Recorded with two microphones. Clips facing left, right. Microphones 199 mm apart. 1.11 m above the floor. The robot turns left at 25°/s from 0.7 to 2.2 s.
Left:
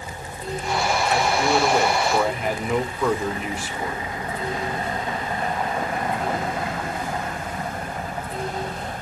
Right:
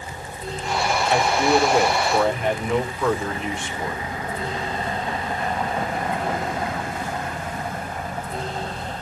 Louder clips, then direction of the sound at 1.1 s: Right 3 dB; 25° right (ahead or behind).